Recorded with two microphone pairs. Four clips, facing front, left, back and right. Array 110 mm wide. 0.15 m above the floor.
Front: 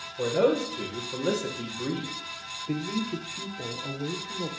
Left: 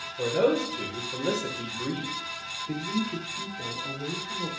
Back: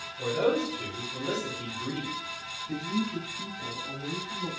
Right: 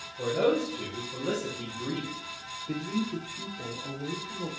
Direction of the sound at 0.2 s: 30° left.